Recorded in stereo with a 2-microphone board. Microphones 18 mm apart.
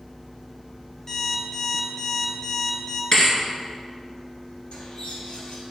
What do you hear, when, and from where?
1.1 s an alarm clock: 30° left (ahead or behind), 2 m
3.1 s a thud: 40° left (ahead or behind), 1.5 m
4.7 s a bird: 80° left, 1.7 m